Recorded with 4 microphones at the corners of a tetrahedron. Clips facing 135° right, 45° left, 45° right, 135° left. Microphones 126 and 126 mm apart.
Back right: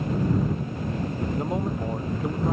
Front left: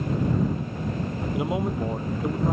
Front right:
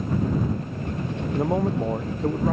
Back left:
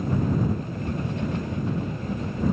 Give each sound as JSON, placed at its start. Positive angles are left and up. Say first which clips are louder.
{"t": 1.3, "sound": "a man speaking", "louder": "front left 4 dB, front right 6 dB", "azimuth_deg": -35}